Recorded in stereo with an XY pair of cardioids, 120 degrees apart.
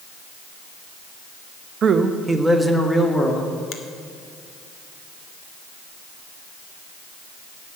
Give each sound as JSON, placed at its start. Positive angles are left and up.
{"t": 1.8, "sound": "a man speaking", "azimuth_deg": -45, "distance_m": 1.0}
{"t": 3.7, "sound": "a finger snap", "azimuth_deg": 65, "distance_m": 1.4}